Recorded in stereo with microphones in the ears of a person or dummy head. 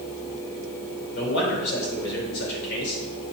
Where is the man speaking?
60° left (ahead or behind), 4 m.